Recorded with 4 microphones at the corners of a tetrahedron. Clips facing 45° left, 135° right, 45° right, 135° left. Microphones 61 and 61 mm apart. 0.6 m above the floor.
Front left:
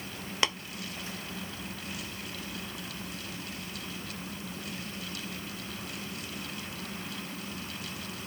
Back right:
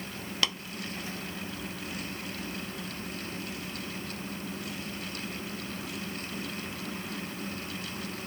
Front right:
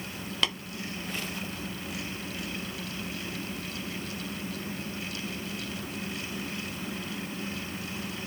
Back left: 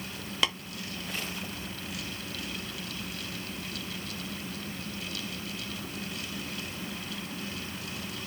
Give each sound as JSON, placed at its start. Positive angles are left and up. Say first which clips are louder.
{"t": 0.4, "sound": "tapping", "louder": "front left 2 dB, back left 1 dB", "azimuth_deg": 65, "distance_m": 0.9}